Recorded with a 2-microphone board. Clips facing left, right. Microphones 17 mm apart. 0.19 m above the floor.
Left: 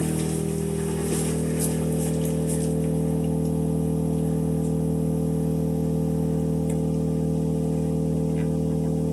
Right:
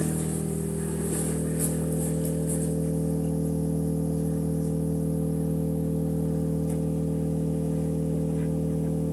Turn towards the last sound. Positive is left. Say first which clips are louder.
# left 3 dB
turn(degrees=75)  # may be behind; listen again after turning